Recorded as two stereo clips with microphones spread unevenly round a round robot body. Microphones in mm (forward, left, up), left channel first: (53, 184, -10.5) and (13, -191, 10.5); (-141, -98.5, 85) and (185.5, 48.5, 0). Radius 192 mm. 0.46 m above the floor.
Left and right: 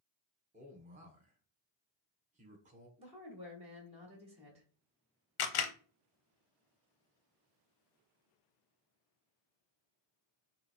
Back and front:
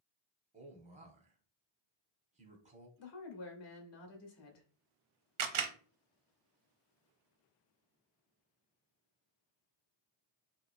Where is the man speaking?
25° right, 1.0 m.